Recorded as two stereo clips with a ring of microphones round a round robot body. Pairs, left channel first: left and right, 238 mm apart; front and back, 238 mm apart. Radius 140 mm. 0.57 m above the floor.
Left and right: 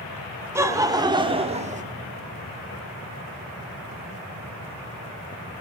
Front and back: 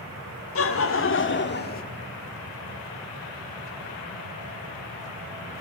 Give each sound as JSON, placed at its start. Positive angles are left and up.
{"t": 0.6, "sound": "laughter", "azimuth_deg": -10, "distance_m": 2.0}